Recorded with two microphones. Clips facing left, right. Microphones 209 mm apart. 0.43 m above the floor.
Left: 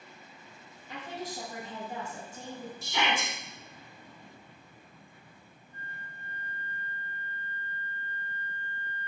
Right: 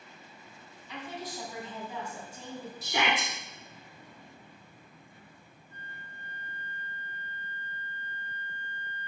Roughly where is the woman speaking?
Left.